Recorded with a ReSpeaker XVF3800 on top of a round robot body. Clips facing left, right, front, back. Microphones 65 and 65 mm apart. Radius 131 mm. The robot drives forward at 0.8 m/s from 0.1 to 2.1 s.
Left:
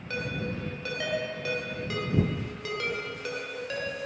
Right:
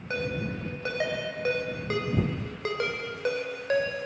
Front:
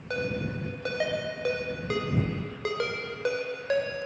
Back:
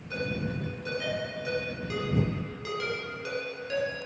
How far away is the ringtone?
About 4 m.